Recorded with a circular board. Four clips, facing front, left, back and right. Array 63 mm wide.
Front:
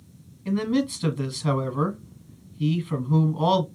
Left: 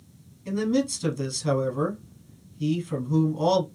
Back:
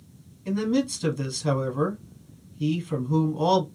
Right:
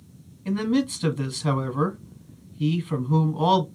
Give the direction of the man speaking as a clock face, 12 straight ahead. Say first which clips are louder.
Right 1 dB, front 1 dB; 2 o'clock.